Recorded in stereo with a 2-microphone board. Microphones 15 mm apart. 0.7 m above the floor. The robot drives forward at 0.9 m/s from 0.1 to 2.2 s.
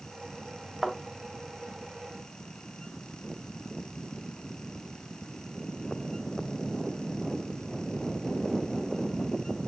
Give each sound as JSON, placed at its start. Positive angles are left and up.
{"t": 0.8, "sound": "a thud", "side_deg": -20, "distance_m": 1.5}